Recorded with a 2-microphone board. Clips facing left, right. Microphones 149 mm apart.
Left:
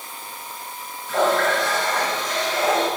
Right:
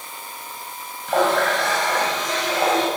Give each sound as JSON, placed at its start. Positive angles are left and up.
{"t": 1.1, "sound": "a running tap", "side_deg": -80, "distance_m": 3.0}